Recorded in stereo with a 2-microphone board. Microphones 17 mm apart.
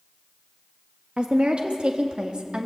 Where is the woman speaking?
80° right, 1.5 m; by 2.7 s 55° right (ahead or behind), 2 m.